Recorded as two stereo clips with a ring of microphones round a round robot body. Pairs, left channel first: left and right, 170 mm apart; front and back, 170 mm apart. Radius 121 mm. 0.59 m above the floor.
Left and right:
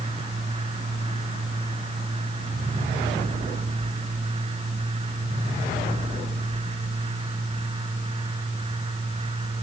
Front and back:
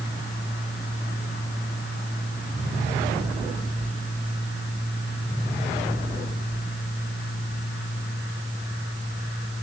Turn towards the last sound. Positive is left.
No sound to turn to.